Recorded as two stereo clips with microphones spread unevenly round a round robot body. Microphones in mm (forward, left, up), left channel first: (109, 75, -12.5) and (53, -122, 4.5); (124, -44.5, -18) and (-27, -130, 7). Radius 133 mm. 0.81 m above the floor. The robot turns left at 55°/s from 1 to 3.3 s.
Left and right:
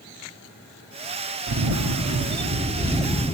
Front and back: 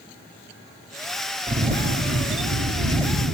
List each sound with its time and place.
1.5 s a camera shutter: 105° right, 1.6 m; by 3.4 s 155° left, 1.6 m